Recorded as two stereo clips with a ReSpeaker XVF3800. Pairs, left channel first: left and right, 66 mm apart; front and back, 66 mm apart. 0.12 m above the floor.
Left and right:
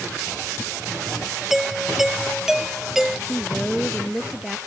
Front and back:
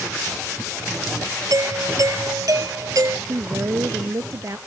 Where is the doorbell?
175° right.